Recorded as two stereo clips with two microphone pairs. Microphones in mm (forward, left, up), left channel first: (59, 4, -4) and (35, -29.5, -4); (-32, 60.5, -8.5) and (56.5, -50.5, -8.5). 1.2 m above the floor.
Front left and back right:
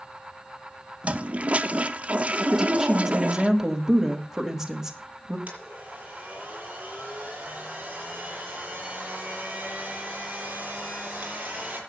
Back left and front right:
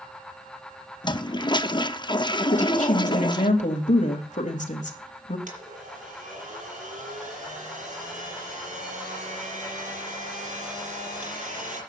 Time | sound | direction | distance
1.0 | a toilet flushing | 175° right | 0.6 m
2.5 | a woman speaking | 155° left | 2.5 m
5.5 | a blender | 70° right | 6.5 m